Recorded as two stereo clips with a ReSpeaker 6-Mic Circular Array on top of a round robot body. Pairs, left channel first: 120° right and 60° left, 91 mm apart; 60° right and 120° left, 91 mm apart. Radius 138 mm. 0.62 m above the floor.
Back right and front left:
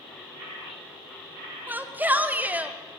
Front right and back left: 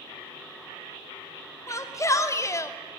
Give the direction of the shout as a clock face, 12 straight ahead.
12 o'clock.